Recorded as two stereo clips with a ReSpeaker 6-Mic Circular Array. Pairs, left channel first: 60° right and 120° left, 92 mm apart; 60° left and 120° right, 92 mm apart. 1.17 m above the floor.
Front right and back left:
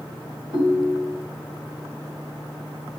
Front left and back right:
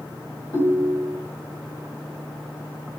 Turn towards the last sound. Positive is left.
turn(degrees=95)